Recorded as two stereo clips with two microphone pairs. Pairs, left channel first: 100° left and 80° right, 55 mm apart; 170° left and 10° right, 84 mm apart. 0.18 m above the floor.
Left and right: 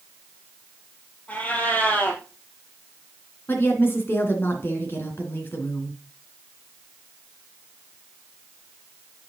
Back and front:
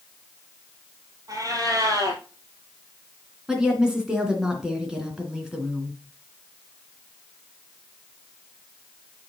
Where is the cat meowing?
40° left, 2 m.